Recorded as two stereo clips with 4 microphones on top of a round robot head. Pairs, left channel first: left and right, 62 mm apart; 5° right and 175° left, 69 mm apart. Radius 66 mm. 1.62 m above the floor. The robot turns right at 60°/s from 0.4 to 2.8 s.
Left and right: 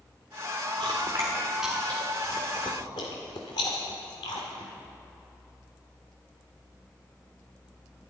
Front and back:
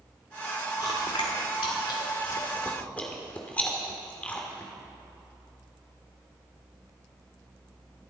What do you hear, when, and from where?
0.8 s chewing: 55° right, 2 m; by 4.7 s 65° left, 2 m